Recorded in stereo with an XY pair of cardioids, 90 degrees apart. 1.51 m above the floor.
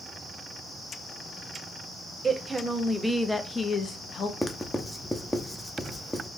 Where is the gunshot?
I don't hear a gunshot.